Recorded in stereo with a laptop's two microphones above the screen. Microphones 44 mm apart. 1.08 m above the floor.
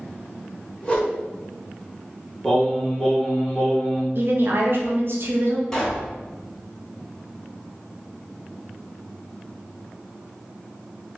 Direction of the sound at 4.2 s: 55° right (ahead or behind).